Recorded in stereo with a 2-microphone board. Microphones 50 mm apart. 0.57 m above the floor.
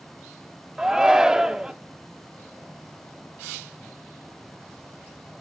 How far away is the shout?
About 0.8 m.